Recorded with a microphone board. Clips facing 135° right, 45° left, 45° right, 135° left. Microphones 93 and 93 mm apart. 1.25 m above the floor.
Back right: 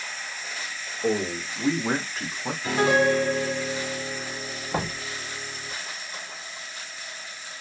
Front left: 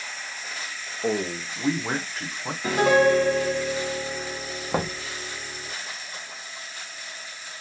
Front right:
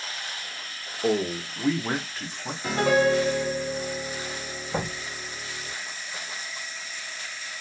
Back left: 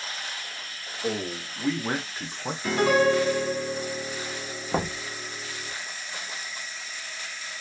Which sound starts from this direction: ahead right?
A man speaking, at 1.0 s.